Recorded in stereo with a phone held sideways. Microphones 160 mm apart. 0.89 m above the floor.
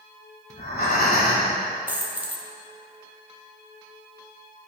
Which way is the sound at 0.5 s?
70° left (ahead or behind).